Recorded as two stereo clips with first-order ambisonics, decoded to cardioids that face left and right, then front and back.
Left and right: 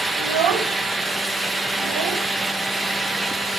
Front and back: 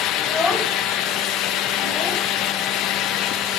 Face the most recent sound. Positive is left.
turn(degrees=-85)